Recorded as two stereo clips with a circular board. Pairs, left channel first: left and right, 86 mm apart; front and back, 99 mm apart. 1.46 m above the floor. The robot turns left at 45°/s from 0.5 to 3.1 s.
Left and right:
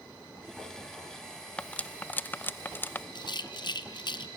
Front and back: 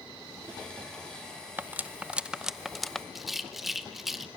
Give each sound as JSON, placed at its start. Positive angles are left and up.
{"t": 1.6, "sound": "cutlery clinking", "azimuth_deg": 145, "distance_m": 0.5}
{"t": 3.1, "sound": "a rattle", "azimuth_deg": 90, "distance_m": 0.8}